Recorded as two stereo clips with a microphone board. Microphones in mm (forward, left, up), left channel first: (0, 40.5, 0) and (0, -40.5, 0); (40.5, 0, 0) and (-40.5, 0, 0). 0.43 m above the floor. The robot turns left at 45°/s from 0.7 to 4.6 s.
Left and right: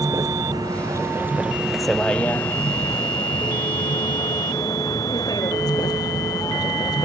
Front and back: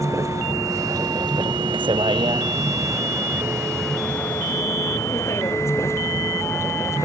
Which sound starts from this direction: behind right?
A vehicle, at 0.0 s.